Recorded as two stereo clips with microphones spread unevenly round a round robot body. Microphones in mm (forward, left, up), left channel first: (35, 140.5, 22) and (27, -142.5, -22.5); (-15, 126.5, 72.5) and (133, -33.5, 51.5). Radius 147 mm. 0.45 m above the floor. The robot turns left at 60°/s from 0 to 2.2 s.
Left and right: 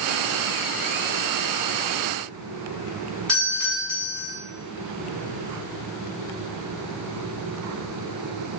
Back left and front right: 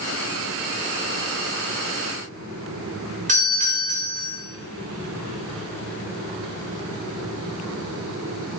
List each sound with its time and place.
3.3 s a doorbell: 5° right, 3 m